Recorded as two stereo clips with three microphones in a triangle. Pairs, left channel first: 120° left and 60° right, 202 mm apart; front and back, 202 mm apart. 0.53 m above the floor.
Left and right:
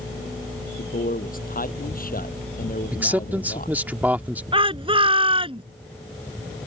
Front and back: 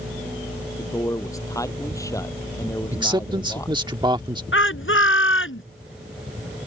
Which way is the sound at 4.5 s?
5° left.